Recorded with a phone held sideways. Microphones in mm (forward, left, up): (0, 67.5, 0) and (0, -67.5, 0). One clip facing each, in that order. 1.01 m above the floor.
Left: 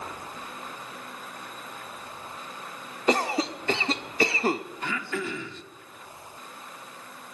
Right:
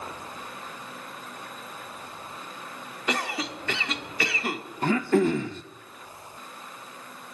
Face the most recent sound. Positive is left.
turn(degrees=-45)  # may be behind; listen again after turning